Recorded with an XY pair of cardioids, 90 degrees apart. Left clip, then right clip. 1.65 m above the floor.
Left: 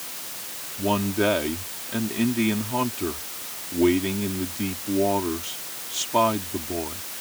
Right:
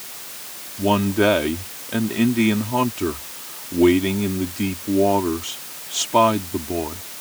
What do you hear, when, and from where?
0.8 s a man speaking: 40° right